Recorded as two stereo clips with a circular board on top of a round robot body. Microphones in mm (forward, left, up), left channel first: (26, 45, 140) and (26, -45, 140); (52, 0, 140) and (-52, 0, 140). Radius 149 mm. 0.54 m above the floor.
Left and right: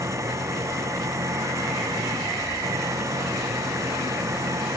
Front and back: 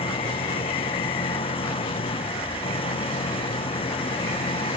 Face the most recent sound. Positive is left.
turn(degrees=-35)